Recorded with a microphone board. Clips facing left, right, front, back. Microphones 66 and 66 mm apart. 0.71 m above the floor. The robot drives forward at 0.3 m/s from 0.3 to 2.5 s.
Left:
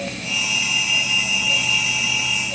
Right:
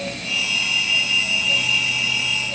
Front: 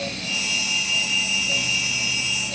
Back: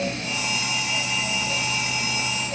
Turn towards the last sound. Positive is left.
No sound to turn to.